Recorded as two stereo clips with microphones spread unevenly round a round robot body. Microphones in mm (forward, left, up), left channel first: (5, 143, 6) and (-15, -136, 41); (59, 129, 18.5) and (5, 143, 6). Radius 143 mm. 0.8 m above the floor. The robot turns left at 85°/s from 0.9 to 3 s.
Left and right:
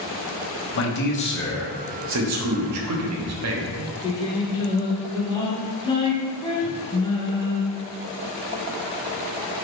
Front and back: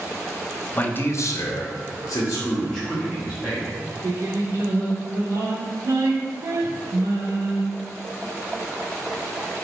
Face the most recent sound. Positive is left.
turn(degrees=160)